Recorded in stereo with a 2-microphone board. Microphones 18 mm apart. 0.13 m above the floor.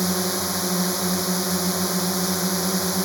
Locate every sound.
0.0 s a drone: centre (ahead or behind)